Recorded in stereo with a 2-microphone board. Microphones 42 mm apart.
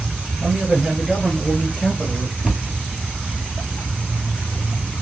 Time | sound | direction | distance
0.4 | a man speaking | 35° right (ahead or behind) | 1.5 m
2.4 | a cupboard door | 15° right (ahead or behind) | 0.9 m